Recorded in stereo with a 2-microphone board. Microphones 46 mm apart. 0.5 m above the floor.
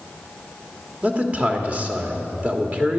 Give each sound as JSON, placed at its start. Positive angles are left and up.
{"t": 1.0, "sound": "a man speaking", "side_deg": -30, "distance_m": 1.5}